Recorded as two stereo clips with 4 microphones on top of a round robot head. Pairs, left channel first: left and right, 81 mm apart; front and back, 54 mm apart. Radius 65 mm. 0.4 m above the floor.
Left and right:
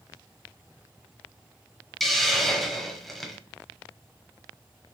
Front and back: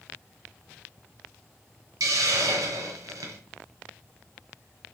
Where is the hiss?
Straight behind, 1.8 m.